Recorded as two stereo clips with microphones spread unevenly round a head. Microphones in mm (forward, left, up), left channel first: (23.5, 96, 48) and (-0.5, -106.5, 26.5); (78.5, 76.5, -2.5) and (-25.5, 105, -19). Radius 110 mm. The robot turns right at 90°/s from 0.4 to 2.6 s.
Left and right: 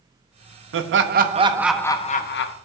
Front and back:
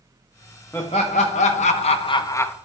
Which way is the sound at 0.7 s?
100° right.